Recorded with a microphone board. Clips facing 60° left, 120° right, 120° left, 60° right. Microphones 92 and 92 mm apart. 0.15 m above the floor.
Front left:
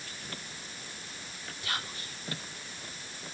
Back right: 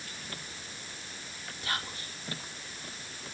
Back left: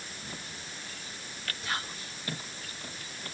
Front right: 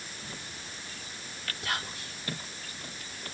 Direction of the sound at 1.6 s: 65° right.